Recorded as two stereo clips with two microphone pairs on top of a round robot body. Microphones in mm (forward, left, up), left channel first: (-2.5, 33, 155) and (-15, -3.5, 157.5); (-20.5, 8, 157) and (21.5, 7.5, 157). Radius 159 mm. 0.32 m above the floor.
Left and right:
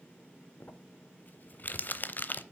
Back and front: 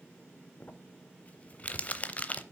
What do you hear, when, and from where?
0.6 s crumpling: 120° left, 0.7 m